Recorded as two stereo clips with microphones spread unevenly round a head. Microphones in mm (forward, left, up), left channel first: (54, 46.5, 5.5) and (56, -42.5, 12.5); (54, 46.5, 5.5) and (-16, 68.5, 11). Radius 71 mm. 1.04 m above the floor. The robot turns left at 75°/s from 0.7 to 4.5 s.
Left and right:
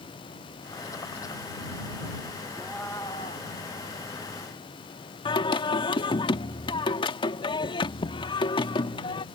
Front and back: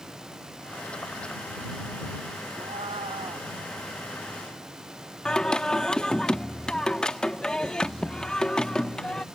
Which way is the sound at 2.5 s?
165° right.